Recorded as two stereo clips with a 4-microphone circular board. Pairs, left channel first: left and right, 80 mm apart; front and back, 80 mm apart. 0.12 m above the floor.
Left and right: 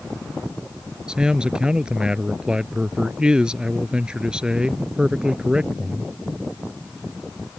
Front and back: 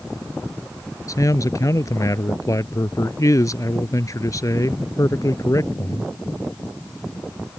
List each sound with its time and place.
1.1 s a man speaking: 15° right